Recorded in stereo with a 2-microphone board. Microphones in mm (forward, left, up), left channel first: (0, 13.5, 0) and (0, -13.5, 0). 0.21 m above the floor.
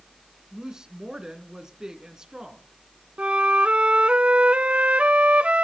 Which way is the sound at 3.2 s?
55° right (ahead or behind).